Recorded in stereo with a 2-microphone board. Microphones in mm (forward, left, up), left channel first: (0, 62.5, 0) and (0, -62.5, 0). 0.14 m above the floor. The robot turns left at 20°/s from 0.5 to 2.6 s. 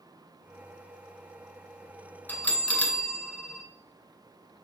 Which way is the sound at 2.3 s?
15° left (ahead or behind).